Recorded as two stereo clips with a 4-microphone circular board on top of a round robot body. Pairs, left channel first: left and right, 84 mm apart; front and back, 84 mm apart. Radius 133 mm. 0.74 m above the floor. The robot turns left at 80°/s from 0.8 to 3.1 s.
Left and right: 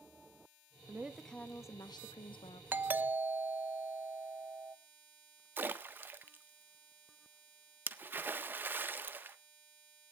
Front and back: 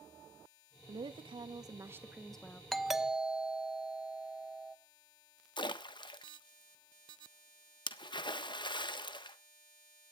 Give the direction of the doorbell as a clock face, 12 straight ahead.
3 o'clock.